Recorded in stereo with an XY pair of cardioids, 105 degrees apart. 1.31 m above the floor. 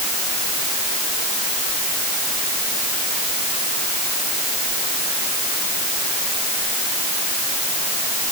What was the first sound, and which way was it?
Only background noise.